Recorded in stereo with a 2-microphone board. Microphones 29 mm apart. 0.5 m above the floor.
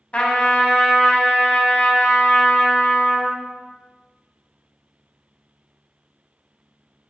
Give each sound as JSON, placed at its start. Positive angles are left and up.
{"t": 0.1, "sound": "a trumpet", "side_deg": 50, "distance_m": 0.6}